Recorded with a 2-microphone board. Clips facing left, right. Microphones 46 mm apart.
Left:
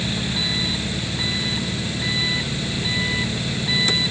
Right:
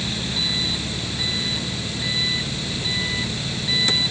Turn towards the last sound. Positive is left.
turn(degrees=15)  # may be behind; listen again after turning